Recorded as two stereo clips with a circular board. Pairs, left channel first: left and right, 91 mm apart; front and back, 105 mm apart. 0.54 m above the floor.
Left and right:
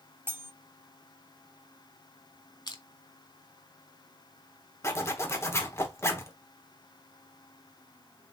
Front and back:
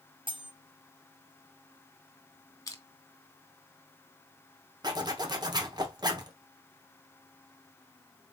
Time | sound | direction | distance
0.3 | cutlery clinking | 150° right | 0.6 m
2.7 | crushing | 55° left | 1.3 m
4.8 | a zipper | 140° left | 1.0 m